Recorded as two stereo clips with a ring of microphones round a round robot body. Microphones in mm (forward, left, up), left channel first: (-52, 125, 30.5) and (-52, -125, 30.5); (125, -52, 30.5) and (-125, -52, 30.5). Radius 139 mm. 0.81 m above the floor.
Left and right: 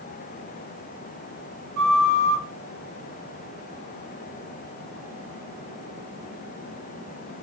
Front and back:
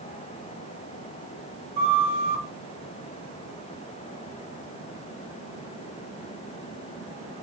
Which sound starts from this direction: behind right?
A flute, at 1.8 s.